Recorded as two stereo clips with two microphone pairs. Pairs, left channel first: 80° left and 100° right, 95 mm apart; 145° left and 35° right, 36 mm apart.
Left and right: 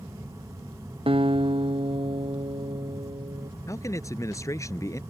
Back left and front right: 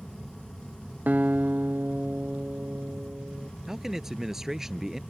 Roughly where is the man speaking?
Ahead left.